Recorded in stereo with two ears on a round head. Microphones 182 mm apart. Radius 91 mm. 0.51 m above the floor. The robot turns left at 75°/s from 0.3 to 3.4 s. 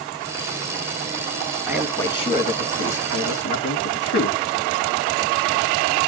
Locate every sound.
1.7 s a man speaking: 170° right, 4.5 m; by 4.4 s 60° left, 4.5 m